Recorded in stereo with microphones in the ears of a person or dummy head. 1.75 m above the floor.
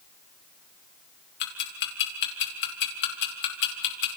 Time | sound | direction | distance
1.4 | ticking | 60° left (ahead or behind) | 3 m